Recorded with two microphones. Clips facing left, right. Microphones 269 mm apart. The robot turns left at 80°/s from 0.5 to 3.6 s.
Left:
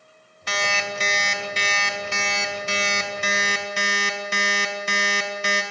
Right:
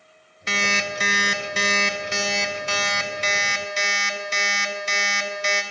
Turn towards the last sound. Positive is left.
turn(degrees=85)